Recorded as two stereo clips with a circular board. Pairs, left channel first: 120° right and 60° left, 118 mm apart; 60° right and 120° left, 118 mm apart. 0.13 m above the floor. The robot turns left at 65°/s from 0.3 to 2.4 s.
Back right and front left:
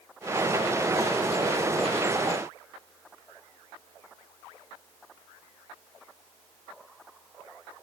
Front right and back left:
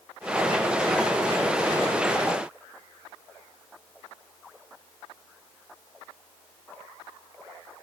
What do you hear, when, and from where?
Only background noise.